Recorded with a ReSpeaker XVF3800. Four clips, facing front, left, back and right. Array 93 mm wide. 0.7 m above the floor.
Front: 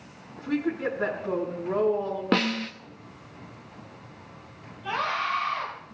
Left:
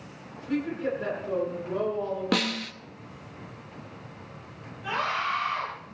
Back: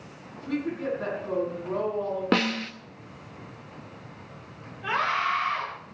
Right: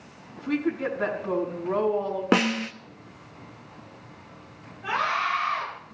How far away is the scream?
About 8.5 m.